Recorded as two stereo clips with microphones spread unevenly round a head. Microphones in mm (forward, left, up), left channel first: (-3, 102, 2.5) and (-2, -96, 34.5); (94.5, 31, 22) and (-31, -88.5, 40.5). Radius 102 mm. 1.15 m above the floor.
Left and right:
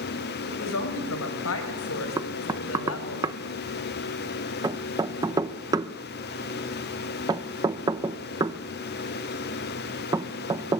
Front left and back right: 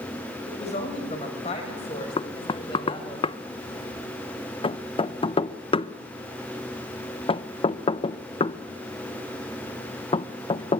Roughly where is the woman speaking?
Left.